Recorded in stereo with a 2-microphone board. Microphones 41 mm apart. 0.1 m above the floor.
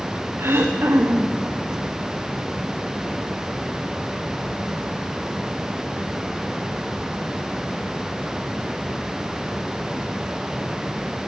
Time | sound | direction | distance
0.4 | throat clearing | 70° right (ahead or behind) | 3.5 m